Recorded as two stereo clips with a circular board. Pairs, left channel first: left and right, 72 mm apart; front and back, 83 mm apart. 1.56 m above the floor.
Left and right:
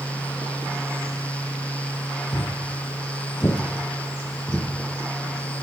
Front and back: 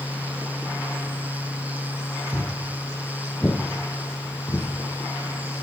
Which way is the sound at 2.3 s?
120° left.